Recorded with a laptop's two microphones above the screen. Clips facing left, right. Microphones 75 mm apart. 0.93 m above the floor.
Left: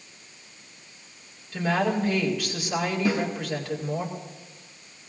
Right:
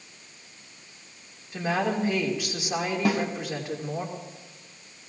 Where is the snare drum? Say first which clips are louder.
Right 1 dB; 65° right (ahead or behind), 2.0 m.